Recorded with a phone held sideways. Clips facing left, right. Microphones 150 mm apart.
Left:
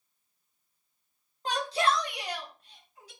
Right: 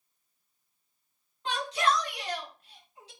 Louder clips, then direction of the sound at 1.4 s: Left 1 dB; 40° left (ahead or behind).